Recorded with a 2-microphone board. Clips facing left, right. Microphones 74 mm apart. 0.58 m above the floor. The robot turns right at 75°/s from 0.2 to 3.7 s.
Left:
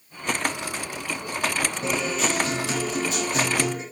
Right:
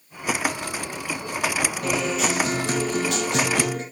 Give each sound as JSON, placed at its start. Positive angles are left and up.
{"t": 1.8, "sound": "a guitar", "azimuth_deg": 155, "distance_m": 5.0}